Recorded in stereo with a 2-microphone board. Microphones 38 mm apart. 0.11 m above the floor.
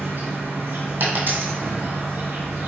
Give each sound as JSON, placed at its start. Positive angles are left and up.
{"t": 0.0, "sound": "an insect", "side_deg": -60, "distance_m": 1.2}
{"t": 1.0, "sound": "a dropped coin", "side_deg": -60, "distance_m": 1.4}